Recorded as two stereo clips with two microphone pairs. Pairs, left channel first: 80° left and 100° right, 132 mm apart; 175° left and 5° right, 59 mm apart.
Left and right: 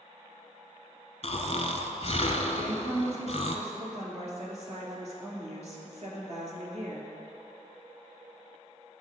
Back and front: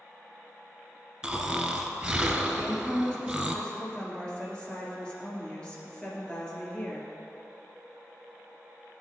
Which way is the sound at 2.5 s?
120° right.